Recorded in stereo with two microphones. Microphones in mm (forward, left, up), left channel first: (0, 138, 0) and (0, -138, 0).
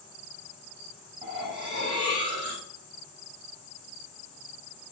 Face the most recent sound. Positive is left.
turn(degrees=-40)  # may be behind; listen again after turning